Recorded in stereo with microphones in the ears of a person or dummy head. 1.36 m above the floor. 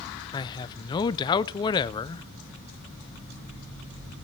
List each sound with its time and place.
0.3 s a man speaking: 25° left (ahead or behind), 0.6 m